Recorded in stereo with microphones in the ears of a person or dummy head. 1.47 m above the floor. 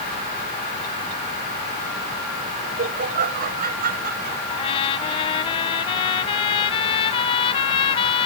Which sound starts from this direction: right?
Laughter, at 2.6 s.